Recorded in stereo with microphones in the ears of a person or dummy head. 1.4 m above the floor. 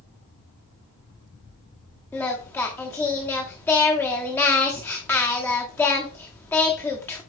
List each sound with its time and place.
2.1 s singing: 10° left (ahead or behind), 1.4 m